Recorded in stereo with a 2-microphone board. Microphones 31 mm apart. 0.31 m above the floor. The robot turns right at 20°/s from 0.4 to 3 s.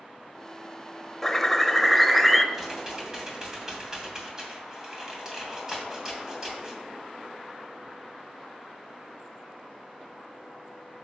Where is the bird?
10° left (ahead or behind), 0.6 m; by 2.4 s centre (ahead or behind), 0.6 m.